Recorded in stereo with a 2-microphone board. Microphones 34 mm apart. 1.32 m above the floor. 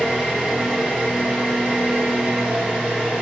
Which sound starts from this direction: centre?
An engine running, at 0.0 s.